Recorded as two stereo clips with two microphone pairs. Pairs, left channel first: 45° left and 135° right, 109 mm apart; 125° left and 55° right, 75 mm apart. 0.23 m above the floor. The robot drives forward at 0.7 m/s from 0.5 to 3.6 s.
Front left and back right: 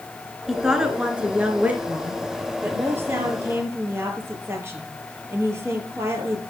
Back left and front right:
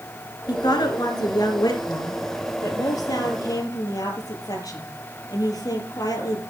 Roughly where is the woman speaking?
Behind left.